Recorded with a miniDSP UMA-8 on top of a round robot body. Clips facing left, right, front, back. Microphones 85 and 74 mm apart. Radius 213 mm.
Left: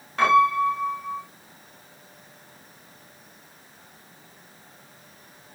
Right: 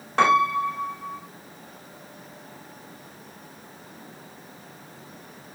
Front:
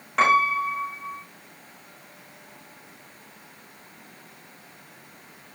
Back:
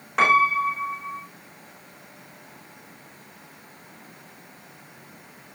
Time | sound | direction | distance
0.2 | a piano | 95° right | 7 m